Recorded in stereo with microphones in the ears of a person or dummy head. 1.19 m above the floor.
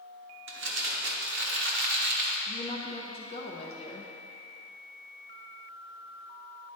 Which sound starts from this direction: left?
A woman speaking, at 2.5 s.